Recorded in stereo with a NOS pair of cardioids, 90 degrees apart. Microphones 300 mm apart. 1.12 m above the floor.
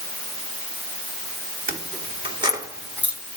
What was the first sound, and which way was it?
Keys jangling, 25° right.